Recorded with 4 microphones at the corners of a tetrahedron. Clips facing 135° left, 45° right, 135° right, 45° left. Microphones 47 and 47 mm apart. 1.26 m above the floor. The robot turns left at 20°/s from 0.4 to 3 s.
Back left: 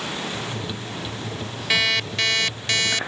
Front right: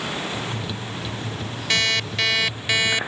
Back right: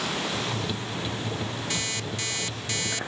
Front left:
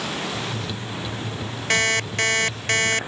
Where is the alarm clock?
50° left; by 3.1 s 25° left.